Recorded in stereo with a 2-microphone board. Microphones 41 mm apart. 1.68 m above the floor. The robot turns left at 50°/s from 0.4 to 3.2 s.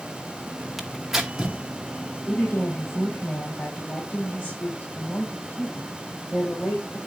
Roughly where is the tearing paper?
Centre.